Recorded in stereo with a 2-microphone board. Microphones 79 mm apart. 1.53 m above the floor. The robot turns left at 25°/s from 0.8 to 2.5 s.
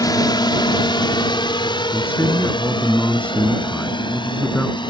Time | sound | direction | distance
0.0 | a drone | 55° left (ahead or behind) | ?
1.9 | a man speaking | 30° left (ahead or behind) | ?